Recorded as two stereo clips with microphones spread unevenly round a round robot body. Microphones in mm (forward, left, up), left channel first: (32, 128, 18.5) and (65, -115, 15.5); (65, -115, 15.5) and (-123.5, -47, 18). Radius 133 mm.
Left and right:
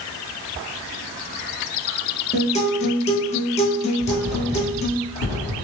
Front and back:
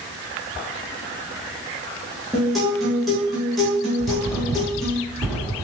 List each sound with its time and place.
2.3 s a guitar: 70° left, 0.5 m
4.0 s writing: 80° left, 1.7 m